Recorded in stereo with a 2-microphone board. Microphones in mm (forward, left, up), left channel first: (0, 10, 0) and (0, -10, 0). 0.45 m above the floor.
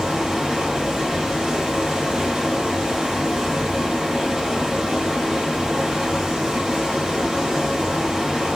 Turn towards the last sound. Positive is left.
turn(degrees=-40)  # may be behind; listen again after turning